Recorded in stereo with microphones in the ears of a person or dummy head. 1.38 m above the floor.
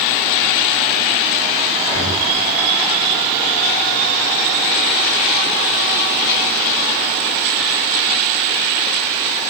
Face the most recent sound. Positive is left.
turn(degrees=25)  # may be behind; listen again after turning